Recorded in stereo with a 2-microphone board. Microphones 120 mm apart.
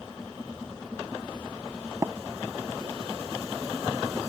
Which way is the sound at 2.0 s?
25° right (ahead or behind).